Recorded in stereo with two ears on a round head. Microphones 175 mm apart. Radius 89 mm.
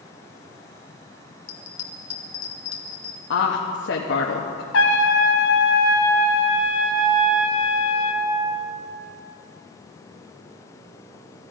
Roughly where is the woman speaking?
Left.